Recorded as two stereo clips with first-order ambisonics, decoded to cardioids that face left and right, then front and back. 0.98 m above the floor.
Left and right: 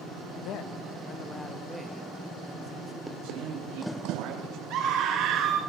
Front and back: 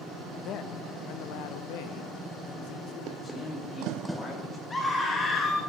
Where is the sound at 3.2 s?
70° right, 6.5 m.